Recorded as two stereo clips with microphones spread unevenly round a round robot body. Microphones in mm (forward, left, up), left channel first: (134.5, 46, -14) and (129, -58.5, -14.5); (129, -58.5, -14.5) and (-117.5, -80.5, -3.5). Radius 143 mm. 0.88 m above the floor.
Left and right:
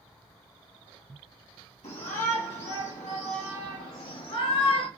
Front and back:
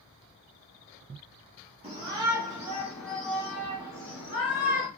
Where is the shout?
115° left, 1.9 m; by 4.9 s 70° left, 2.5 m.